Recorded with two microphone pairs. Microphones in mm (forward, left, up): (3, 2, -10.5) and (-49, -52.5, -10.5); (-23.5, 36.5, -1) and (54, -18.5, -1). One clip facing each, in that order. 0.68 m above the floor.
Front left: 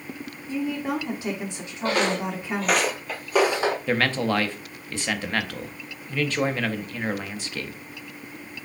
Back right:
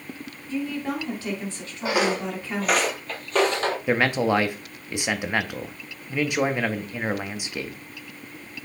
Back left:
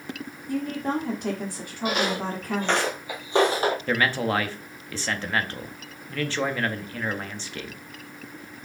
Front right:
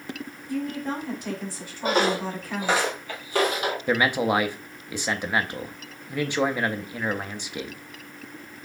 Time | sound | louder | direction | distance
0.5 | a woman speaking | front left 1 dB, back left 2 dB | 120° left | 1.2 m
1.8 | footsteps | even, front right 3 dB | 60° right | 0.9 m
3.9 | a man speaking | back right 6 dB, front right 2 dB | 90° right | 0.5 m